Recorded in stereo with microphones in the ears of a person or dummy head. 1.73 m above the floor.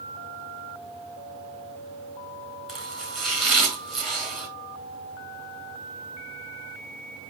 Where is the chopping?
Centre (ahead or behind), 4 m.